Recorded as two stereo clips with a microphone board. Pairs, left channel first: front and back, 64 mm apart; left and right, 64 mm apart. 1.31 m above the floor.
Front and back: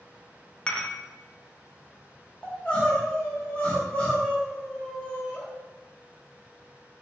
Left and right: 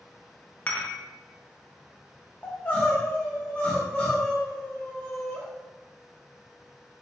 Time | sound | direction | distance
0.7 | dishes clattering | 50° left | 0.5 m
2.4 | crying | 45° left | 1.1 m